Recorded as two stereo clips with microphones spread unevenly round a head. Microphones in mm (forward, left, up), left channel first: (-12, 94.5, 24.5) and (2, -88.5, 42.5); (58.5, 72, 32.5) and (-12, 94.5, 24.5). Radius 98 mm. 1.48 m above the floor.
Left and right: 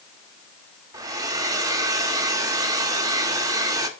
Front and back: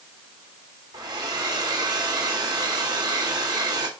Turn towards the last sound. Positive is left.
turn(degrees=-150)